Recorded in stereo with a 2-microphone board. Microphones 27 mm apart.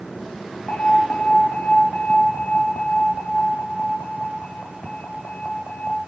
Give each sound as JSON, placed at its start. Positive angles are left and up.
{"t": 0.7, "sound": "an alarm", "side_deg": 55, "distance_m": 1.9}